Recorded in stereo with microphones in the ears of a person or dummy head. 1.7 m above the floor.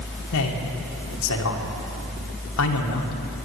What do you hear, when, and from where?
0.3 s a man speaking: 85° left, 1.9 m